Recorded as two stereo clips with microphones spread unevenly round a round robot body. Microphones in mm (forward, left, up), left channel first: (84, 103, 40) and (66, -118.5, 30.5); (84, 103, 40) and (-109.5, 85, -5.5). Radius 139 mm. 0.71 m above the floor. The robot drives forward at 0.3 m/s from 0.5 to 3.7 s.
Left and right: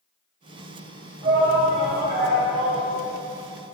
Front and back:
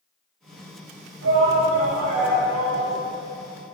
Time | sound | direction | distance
1.2 | a shout | 160° right | 4.5 m